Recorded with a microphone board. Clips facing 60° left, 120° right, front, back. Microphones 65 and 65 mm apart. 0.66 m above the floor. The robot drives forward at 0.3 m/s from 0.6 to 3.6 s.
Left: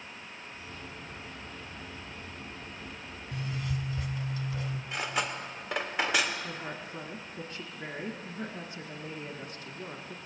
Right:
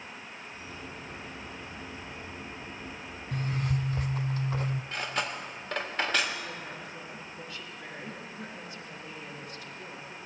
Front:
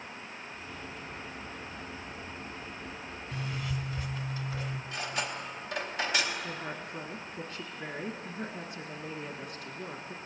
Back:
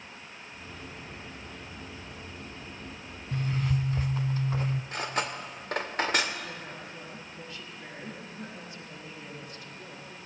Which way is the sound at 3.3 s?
140° right.